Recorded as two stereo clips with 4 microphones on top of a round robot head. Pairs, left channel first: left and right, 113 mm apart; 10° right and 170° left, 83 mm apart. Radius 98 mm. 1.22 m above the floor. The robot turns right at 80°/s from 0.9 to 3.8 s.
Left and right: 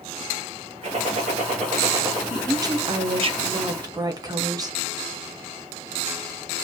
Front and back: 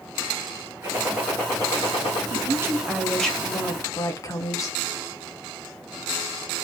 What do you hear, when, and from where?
0.8 s a gunshot: 120° right, 0.7 m; by 2.2 s 20° right, 0.7 m
2.3 s a woman speaking: 165° right, 0.6 m; by 4.8 s 45° right, 0.6 m